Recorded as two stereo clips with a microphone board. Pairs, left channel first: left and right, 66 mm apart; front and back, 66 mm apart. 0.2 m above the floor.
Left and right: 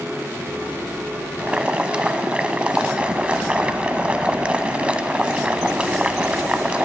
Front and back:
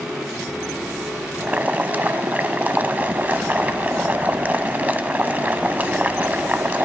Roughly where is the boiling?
Behind right.